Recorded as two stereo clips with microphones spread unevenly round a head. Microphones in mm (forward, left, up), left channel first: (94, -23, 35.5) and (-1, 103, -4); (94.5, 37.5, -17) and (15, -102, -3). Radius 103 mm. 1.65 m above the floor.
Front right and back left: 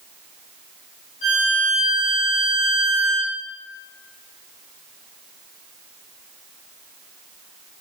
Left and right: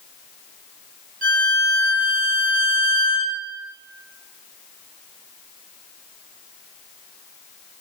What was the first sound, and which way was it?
A violin, 95° right.